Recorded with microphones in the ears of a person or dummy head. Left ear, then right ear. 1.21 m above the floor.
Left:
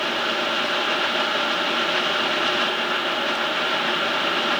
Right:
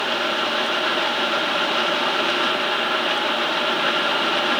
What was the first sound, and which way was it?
Only background noise.